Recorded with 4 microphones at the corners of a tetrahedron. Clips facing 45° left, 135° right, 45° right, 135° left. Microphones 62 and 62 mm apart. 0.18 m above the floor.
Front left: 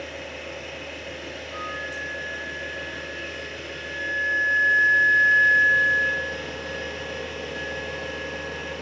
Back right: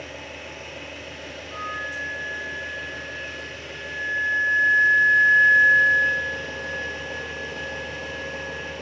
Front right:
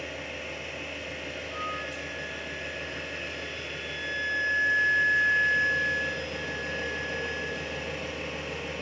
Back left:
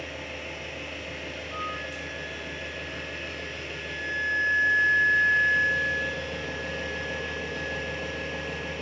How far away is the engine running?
About 1.0 m.